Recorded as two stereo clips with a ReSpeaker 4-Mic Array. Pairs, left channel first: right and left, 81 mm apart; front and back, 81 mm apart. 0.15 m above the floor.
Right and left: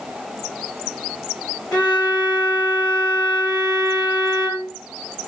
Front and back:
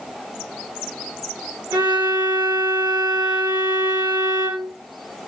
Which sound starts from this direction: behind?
A violin, at 1.7 s.